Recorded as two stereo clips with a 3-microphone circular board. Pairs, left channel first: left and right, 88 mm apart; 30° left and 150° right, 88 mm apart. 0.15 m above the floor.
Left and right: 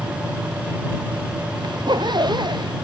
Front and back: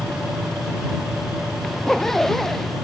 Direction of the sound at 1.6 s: 55° right.